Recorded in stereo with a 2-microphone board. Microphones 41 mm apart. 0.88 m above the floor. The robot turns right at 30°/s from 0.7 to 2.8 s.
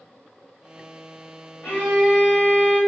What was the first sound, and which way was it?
A violin, 120° left.